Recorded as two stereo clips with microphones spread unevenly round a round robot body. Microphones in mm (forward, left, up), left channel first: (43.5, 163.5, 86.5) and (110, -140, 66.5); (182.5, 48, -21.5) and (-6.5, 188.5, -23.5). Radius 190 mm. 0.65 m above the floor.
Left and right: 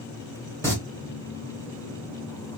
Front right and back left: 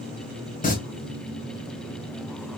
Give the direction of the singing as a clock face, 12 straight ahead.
11 o'clock.